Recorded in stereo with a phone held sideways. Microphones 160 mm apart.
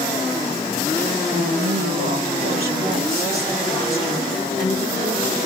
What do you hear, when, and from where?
1.3 s a woman speaking: 65° right (ahead or behind), 1.0 m